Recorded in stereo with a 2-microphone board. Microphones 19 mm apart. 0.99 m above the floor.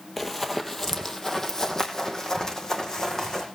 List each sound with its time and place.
0.2 s running footsteps: 10° left (ahead or behind), 1.6 m; by 3.5 s 40° left (ahead or behind), 3.5 m